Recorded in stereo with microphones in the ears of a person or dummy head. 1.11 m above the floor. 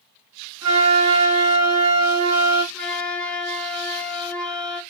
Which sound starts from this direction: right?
A flute, at 0.6 s.